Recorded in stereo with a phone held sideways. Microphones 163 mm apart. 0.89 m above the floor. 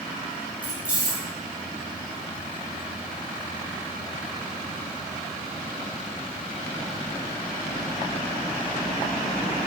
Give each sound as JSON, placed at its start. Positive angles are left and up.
{"t": 0.6, "sound": "keys jangling", "side_deg": -10, "distance_m": 3.0}